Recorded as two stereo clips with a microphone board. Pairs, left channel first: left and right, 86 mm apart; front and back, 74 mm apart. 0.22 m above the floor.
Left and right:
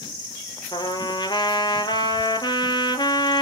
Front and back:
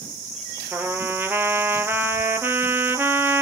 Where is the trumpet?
120° left, 1.1 m.